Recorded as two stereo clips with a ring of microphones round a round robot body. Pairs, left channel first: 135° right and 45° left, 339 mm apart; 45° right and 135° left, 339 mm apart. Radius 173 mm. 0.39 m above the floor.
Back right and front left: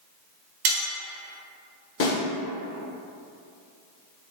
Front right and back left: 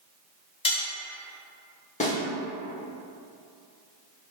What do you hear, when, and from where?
0.7 s cutlery clinking: 30° left, 0.8 m
2.0 s a snare drum: 105° right, 0.9 m